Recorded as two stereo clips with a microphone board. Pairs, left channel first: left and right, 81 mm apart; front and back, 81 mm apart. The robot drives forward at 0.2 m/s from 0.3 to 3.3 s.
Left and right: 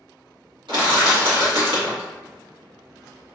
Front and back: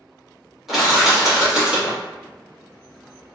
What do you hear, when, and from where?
0.7 s crushing: 95° right, 1.5 m; by 2.0 s 105° right, 1.5 m